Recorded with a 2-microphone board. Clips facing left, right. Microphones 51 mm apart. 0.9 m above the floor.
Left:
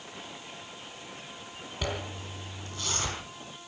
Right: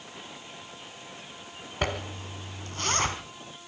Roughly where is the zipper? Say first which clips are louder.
Right 4 dB; right.